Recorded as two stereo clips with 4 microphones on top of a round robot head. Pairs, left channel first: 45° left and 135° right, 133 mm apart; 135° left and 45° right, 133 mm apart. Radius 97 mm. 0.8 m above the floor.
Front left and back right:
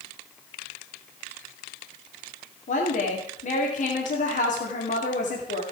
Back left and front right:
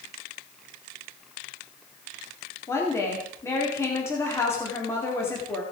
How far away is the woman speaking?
About 2.5 m.